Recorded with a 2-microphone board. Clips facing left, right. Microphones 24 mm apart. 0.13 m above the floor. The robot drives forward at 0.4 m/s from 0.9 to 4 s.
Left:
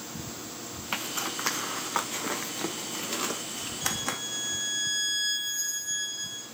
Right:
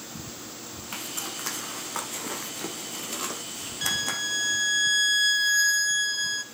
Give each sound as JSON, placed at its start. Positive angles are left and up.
{"t": 0.9, "sound": "a zipper", "side_deg": 25, "distance_m": 0.6}
{"t": 3.8, "sound": "a violin", "side_deg": -60, "distance_m": 1.0}